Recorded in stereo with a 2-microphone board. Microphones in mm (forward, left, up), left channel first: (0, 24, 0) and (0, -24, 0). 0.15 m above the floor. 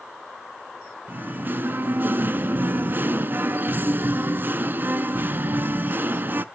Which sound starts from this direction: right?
Singing, at 1.1 s.